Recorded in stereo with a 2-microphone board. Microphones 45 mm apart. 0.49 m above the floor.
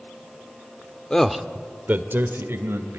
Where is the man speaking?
15° left (ahead or behind), 1.0 m; by 3.0 s 65° right (ahead or behind), 2.5 m.